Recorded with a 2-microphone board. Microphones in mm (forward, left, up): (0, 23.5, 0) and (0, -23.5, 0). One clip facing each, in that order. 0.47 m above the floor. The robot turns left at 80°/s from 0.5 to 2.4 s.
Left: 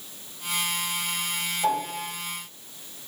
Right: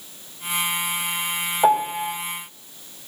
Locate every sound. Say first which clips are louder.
1.6 s a piano: right 9 dB; 115° right, 2.5 m; by 2.1 s 155° right, 2.5 m